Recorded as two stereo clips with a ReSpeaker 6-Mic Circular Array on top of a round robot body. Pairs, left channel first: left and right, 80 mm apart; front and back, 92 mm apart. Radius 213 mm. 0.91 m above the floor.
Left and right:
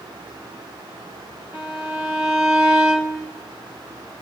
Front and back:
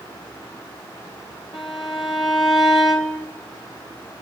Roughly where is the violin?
Ahead right.